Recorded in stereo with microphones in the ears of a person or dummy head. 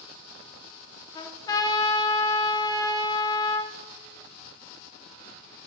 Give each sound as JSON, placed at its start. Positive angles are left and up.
{"t": 1.1, "sound": "a trumpet", "side_deg": 20, "distance_m": 0.8}